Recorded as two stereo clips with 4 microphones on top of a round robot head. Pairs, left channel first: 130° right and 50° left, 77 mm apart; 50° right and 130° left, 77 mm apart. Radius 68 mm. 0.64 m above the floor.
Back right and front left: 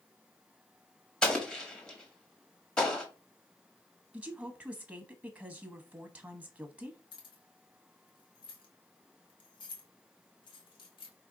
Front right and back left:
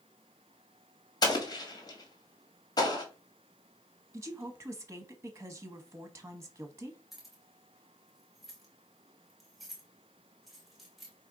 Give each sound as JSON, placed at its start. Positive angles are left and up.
{"t": 1.2, "sound": "an explosion", "azimuth_deg": -55, "distance_m": 1.7}
{"t": 4.1, "sound": "a woman speaking", "azimuth_deg": 115, "distance_m": 0.9}
{"t": 7.1, "sound": "keys jangling", "azimuth_deg": -140, "distance_m": 1.5}